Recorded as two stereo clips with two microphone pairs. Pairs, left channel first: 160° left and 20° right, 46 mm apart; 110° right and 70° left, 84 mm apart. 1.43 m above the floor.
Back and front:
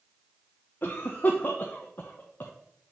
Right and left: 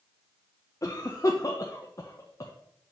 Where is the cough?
155° right, 0.8 m.